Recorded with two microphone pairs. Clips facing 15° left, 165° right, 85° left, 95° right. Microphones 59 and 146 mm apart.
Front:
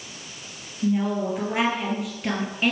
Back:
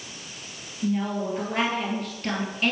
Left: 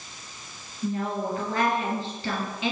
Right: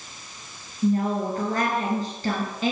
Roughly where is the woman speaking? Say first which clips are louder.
Front 3 dB, right 5 dB; ahead right.